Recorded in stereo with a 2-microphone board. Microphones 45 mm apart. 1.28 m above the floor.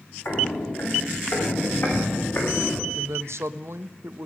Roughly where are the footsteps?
Left.